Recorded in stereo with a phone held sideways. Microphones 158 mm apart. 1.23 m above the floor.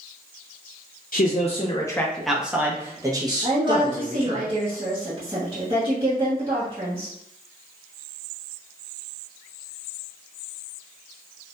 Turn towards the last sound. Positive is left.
turn(degrees=-25)  # may be behind; listen again after turning